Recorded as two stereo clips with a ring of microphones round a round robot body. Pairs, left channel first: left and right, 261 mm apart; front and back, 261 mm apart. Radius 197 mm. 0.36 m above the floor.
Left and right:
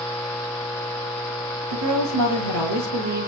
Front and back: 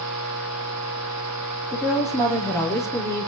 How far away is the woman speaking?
About 7.5 m.